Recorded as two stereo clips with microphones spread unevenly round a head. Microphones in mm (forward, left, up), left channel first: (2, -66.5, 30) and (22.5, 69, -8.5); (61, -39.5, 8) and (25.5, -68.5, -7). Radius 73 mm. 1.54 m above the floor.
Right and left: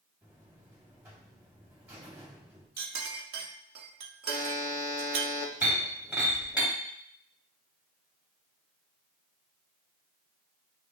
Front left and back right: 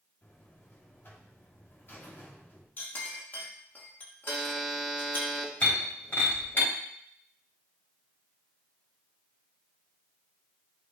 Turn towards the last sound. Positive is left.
turn(degrees=-5)